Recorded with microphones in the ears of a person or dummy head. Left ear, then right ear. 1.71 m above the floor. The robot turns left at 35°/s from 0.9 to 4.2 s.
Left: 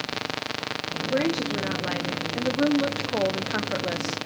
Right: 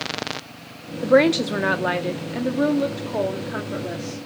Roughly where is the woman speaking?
Behind right.